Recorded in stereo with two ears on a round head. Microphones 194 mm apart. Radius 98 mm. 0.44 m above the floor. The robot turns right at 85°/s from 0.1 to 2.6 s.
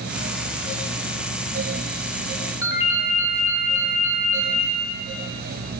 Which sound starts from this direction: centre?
A ringtone, at 2.6 s.